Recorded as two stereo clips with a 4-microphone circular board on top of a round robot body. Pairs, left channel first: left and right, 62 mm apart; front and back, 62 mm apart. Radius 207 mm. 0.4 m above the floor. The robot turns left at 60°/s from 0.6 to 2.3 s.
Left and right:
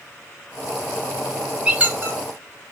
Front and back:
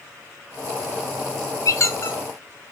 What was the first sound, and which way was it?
A squeak, 20° right.